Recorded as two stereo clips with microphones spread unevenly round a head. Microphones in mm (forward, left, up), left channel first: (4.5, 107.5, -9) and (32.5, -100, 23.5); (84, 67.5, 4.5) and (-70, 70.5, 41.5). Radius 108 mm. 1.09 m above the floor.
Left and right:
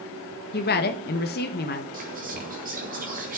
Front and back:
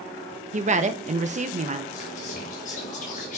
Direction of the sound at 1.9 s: 30° right.